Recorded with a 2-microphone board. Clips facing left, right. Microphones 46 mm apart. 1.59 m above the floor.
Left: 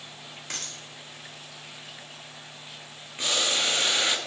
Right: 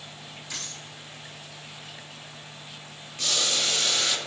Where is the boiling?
25° left (ahead or behind), 0.6 m.